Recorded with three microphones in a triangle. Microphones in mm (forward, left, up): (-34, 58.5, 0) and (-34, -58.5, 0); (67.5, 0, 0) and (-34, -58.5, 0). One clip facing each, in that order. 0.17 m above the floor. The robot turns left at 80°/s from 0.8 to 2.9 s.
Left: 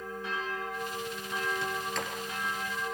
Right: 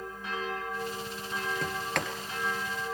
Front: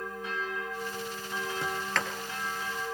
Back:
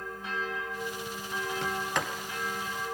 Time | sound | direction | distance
1.6 | a sliding door | 50° right | 2 m